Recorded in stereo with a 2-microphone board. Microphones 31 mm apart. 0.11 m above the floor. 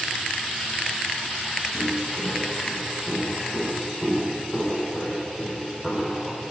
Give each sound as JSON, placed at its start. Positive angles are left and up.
{"t": 1.7, "sound": "footsteps", "side_deg": -35, "distance_m": 8.5}